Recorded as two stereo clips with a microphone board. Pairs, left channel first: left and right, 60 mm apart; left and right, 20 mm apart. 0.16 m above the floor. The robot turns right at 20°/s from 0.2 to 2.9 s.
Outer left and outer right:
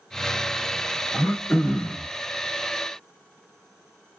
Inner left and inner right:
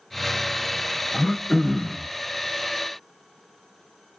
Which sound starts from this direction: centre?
Throat clearing, at 1.1 s.